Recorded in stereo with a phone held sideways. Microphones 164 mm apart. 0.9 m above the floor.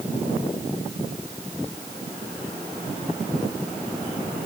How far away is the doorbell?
I don't hear a doorbell.